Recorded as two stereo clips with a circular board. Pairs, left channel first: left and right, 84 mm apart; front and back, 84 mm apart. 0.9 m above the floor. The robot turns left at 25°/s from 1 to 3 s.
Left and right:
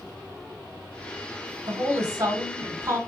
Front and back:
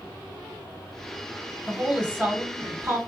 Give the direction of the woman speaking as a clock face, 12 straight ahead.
3 o'clock.